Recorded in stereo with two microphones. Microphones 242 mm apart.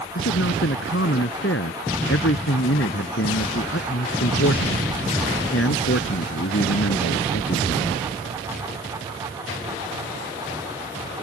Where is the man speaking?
60° left (ahead or behind).